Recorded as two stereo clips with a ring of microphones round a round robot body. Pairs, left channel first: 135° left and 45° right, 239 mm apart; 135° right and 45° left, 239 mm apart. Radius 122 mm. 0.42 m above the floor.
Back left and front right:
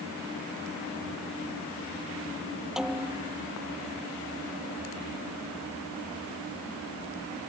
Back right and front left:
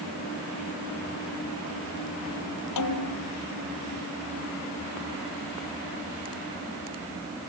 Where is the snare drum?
135° right.